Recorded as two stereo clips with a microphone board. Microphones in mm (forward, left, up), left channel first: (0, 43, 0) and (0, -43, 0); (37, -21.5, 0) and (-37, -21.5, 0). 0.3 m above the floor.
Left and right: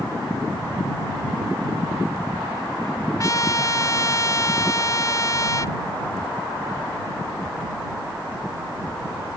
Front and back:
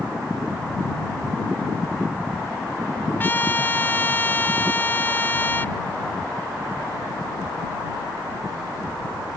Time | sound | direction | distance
3.2 | a trumpet | 55° left | ?